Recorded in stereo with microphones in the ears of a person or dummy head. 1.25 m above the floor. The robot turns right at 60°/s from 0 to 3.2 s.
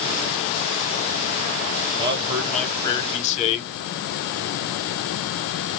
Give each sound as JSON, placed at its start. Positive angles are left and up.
{"t": 2.0, "sound": "a man speaking", "azimuth_deg": -35, "distance_m": 0.9}